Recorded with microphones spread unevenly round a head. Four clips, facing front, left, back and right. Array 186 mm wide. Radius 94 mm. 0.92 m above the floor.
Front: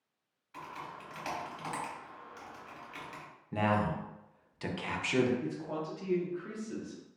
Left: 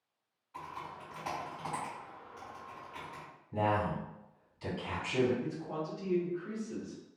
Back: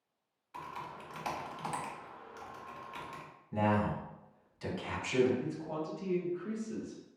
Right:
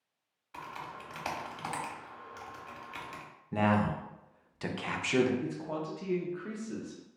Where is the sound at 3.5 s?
60° right, 0.6 m.